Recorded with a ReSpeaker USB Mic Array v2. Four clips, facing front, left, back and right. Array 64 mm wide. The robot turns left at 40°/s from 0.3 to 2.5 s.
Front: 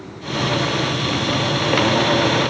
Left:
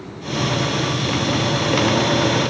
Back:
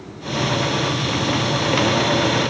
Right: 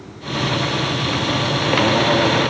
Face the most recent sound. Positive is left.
No sound to turn to.